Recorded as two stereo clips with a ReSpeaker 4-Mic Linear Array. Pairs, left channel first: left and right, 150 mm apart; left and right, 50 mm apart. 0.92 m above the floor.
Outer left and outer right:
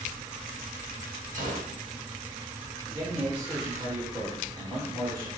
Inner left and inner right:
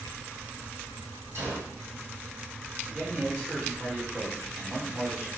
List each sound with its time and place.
1.4 s a gunshot: 60° right (ahead or behind), 1.3 m
2.9 s a man speaking: 30° right (ahead or behind), 1.4 m